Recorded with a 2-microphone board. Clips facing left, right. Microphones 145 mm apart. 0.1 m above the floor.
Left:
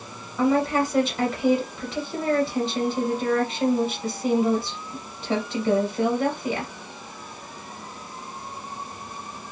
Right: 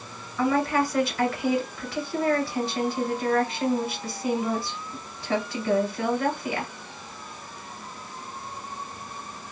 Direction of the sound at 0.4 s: 25° left (ahead or behind).